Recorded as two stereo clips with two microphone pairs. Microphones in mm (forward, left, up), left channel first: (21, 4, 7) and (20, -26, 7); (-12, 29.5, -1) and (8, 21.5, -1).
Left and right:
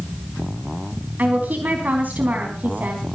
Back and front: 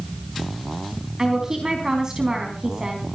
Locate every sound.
1.2 s a woman speaking: 80° right, 3.5 m